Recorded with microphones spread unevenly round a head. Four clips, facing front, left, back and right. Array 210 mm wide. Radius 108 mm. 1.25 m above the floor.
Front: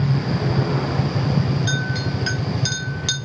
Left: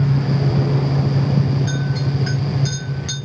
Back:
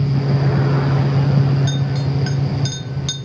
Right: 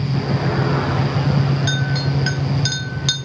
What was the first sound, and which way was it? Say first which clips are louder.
A clink: right 1 dB, back 2 dB; 75° right.